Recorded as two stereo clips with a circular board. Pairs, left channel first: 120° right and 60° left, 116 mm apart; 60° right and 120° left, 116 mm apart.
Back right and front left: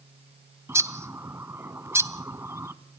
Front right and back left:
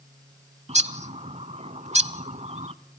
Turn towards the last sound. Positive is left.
turn(degrees=125)